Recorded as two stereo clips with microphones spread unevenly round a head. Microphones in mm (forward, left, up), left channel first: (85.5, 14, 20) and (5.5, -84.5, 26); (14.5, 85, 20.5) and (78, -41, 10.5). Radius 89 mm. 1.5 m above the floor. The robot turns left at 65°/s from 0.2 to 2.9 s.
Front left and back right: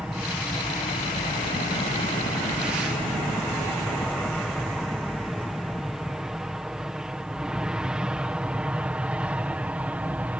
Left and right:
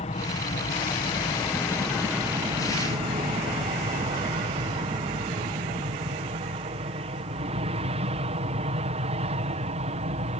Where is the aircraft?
145° left; by 10.4 s 55° right.